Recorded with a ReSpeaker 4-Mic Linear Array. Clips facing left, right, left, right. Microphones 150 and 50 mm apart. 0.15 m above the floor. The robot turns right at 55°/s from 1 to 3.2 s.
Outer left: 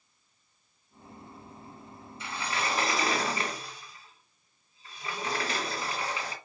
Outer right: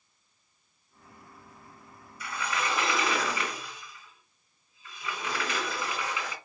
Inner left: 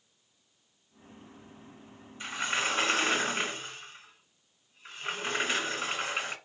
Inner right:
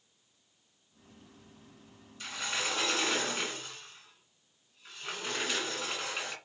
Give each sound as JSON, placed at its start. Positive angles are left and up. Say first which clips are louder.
{"t": 2.2, "sound": "a sliding door", "louder": "outer right 1 dB, inner left 4 dB", "azimuth_deg": 50, "distance_m": 1.5}